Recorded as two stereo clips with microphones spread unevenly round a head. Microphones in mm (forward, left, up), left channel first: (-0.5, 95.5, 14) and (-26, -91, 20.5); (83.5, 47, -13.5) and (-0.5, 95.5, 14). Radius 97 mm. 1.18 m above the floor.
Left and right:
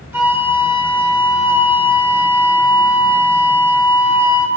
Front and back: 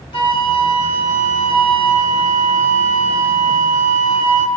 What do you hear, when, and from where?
0.1 s a flute: 20° right, 2 m